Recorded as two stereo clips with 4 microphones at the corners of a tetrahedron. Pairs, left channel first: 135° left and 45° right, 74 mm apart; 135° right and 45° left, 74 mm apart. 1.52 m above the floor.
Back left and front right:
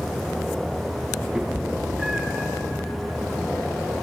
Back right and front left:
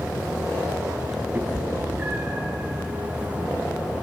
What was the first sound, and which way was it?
A cat meowing, 20° left.